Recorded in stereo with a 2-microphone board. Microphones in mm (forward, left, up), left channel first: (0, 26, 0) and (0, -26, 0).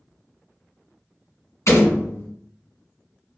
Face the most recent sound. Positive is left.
turn(degrees=75)  # may be behind; listen again after turning